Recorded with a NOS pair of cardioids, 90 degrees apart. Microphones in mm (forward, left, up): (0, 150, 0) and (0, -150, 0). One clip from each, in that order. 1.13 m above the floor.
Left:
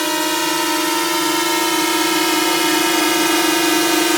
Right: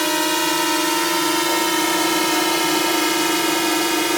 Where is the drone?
5° left; by 4.2 s 30° left.